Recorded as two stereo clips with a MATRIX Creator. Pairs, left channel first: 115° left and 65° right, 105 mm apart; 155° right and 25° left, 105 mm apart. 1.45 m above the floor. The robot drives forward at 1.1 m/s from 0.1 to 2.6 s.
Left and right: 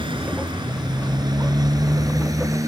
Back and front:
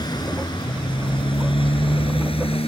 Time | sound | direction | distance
0.0 | a motorcycle | 110° right | ?